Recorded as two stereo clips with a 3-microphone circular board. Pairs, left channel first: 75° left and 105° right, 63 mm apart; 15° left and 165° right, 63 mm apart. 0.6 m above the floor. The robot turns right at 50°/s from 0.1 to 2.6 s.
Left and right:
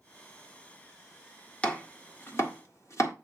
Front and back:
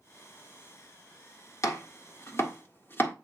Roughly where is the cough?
No cough in this recording.